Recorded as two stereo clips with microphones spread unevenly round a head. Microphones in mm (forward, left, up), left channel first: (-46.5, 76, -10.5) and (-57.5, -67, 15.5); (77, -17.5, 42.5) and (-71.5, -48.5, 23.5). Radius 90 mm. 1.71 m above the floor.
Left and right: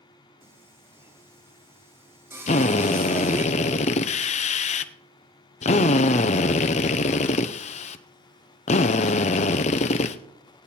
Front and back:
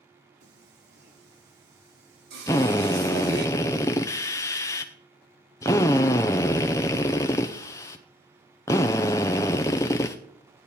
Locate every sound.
0.4 s singing: 160° right, 2 m
2.5 s a drill: 65° left, 0.6 m